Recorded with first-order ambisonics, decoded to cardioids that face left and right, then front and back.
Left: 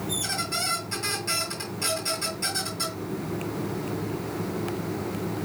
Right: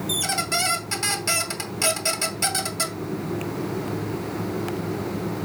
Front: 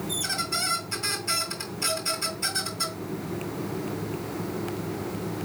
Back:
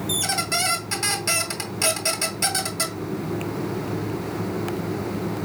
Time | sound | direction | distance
0.1 | a squeak | 145° right | 2.5 m